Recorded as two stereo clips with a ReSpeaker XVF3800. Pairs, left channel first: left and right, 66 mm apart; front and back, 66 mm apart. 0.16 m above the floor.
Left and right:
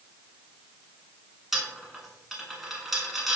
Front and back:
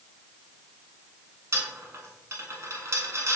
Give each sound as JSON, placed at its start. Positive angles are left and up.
{"t": 1.5, "sound": "a dropped coin", "azimuth_deg": -175, "distance_m": 0.6}